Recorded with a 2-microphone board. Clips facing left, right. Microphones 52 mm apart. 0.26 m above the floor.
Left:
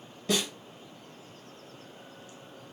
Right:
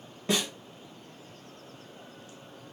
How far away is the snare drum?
About 1.8 m.